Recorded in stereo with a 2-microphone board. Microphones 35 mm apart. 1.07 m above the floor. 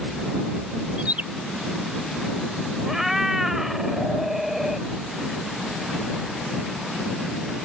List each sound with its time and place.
1.0 s a bird: 45° right (ahead or behind)
2.9 s a cat meowing: 10° right (ahead or behind)